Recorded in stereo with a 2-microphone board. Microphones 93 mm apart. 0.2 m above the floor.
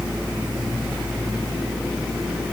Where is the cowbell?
I don't hear a cowbell.